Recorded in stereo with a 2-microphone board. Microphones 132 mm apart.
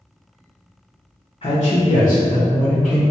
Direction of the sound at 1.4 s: 45° left (ahead or behind).